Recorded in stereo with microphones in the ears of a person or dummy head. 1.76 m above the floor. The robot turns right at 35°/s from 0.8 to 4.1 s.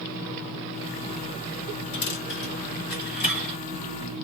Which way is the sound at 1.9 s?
55° left (ahead or behind).